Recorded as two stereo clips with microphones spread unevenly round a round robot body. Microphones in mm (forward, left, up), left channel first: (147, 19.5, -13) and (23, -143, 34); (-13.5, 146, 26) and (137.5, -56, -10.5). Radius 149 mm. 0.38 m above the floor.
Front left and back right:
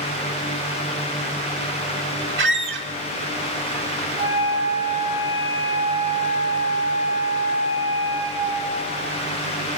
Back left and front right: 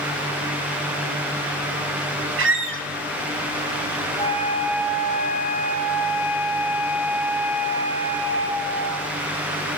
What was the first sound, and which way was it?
A squeak, 95° right.